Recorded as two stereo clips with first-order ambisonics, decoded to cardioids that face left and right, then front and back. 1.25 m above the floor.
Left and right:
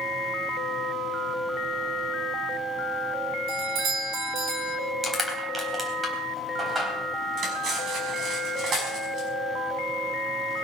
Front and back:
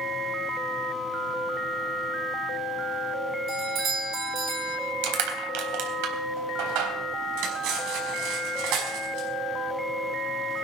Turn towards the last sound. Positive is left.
turn(degrees=-150)